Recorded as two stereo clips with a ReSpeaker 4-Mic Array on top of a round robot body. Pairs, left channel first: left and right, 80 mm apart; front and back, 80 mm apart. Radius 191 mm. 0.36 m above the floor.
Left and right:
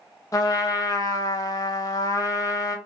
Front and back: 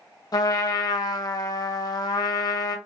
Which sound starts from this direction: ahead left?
A trumpet, at 0.3 s.